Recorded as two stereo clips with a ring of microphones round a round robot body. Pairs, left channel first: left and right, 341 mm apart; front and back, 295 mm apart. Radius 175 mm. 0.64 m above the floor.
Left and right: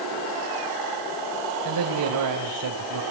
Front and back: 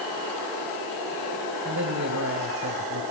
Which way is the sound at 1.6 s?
125° right.